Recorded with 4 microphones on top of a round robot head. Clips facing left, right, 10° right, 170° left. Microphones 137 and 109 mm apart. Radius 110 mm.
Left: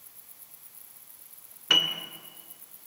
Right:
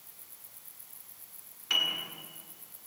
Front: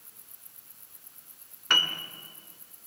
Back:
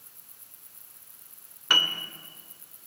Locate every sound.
1.7 s a piano: 90° left, 2 m